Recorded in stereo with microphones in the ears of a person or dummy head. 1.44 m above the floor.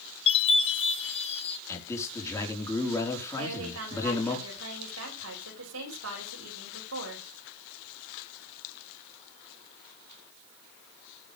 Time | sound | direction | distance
0.3 | a chime | 30° left (ahead or behind) | 2 m
1.7 | a man speaking | 10° left (ahead or behind) | 4.5 m
3.4 | a woman speaking | 75° right (ahead or behind) | 7.5 m